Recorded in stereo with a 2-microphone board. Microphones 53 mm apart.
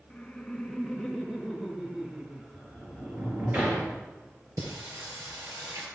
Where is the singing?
75° right (ahead or behind), 4 m.